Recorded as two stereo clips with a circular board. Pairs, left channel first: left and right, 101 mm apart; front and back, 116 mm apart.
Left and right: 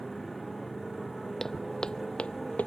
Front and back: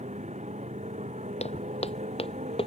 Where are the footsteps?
5° left; by 2.7 s 20° left.